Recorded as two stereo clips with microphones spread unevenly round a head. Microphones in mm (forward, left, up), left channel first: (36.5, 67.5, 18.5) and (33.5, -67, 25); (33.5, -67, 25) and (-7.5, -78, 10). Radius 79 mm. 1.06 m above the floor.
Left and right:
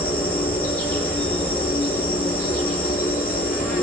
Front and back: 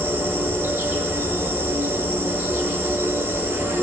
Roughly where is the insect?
Behind.